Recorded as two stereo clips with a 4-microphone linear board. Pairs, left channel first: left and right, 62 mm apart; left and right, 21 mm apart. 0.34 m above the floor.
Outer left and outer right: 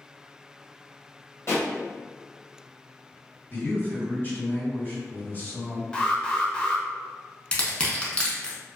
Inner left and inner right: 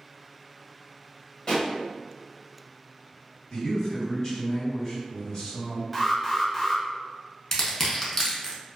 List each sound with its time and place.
1.5 s a pop: 50° left (ahead or behind), 1.2 m
3.5 s a man speaking: 35° left (ahead or behind), 1.9 m
5.9 s an alarm: 15° left (ahead or behind), 0.5 m
7.5 s crushing: 20° left (ahead or behind), 0.6 m